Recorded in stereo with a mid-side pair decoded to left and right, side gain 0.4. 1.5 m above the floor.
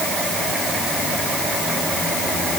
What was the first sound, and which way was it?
Only background noise.